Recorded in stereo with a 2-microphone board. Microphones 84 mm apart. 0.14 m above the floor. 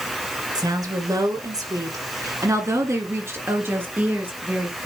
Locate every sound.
0.6 s a woman speaking: 45° right (ahead or behind), 1.9 m; by 4.9 s 15° right (ahead or behind), 2 m